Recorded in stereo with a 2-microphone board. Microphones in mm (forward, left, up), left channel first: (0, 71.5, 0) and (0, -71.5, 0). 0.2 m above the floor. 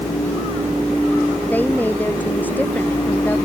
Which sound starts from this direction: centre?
A woman speaking, at 1.4 s.